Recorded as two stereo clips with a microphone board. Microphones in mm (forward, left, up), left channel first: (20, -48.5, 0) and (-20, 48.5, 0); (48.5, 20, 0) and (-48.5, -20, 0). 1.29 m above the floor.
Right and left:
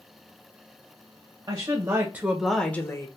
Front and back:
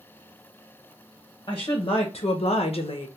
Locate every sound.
1.5 s a woman speaking: 65° left, 0.8 m; by 3.1 s 10° right, 0.7 m